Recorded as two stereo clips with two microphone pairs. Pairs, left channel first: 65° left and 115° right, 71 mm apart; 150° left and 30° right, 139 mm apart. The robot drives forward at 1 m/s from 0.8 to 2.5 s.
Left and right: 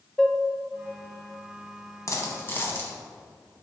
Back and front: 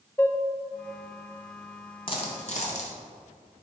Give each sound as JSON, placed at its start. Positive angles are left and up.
{"t": 0.2, "sound": "dishes clattering", "azimuth_deg": 135, "distance_m": 0.6}
{"t": 2.1, "sound": "a dropped coin", "azimuth_deg": 100, "distance_m": 1.1}